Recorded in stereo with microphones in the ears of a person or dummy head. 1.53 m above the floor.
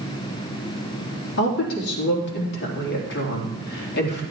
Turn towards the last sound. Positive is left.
turn(degrees=55)  # may be behind; listen again after turning